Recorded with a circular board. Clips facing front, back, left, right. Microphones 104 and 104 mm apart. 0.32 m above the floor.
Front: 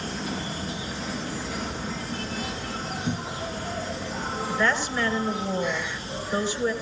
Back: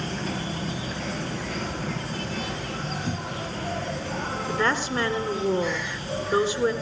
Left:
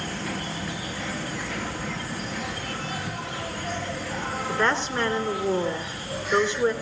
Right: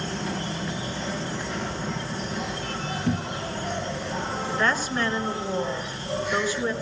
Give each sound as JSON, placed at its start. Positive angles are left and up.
{"t": 0.0, "sound": "an insect", "azimuth_deg": -155, "distance_m": 4.0}
{"t": 3.1, "sound": "a cupboard door", "azimuth_deg": -80, "distance_m": 0.7}
{"t": 4.5, "sound": "a woman speaking", "azimuth_deg": 155, "distance_m": 3.5}